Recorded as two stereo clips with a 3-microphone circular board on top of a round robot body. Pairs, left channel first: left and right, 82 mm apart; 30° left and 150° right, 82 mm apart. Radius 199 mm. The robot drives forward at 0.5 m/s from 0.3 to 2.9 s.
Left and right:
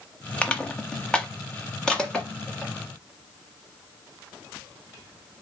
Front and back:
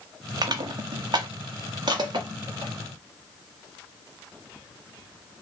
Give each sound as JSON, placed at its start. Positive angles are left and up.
{"t": 0.4, "sound": "crushing", "azimuth_deg": 165, "distance_m": 0.8}